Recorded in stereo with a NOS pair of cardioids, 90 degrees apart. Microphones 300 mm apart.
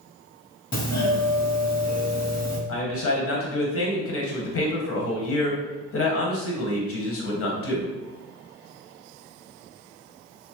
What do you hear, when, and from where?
0.7 s a doorbell: 30° left, 1.0 m
2.7 s a man speaking: 50° left, 1.2 m